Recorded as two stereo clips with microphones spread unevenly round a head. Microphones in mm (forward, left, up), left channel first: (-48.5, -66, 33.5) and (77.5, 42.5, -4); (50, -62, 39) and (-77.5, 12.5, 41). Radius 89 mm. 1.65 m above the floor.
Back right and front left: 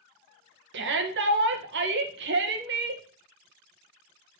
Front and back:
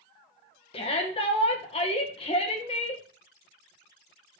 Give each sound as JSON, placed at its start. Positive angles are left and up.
{"t": 0.7, "sound": "a shout", "azimuth_deg": 25, "distance_m": 2.0}